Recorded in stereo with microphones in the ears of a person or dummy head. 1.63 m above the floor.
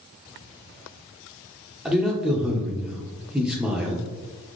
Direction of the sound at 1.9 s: 5° right (ahead or behind).